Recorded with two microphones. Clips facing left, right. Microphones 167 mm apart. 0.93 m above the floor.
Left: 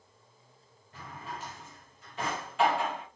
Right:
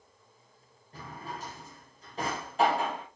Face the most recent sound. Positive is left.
turn(degrees=-40)  # may be behind; listen again after turning